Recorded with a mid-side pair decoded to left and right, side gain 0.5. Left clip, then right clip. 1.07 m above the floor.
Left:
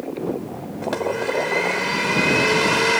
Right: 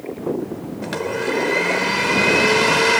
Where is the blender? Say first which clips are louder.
Left 1 dB; 10° right.